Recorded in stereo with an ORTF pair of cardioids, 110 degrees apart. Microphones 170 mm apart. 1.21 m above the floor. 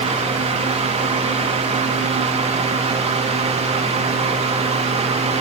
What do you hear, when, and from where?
0.0 s a fan: 40° right, 3 m